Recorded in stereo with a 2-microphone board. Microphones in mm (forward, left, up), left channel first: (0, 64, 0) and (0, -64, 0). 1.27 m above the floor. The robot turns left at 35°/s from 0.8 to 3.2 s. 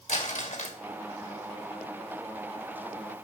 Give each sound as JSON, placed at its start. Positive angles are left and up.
{"t": 0.1, "sound": "crumpling", "side_deg": 65, "distance_m": 1.9}